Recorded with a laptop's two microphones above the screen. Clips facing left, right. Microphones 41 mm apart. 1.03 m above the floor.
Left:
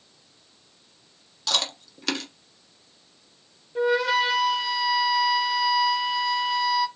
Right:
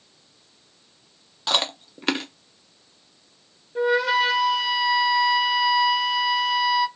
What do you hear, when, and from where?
1.5 s chewing: 25° right (ahead or behind), 0.5 m
3.8 s a flute: centre (ahead or behind), 0.5 m